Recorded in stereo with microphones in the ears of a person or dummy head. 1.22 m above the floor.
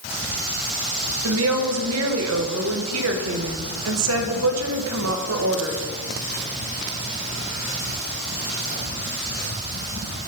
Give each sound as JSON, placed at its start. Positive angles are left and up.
{"t": 1.2, "sound": "a woman speaking", "side_deg": -80, "distance_m": 1.2}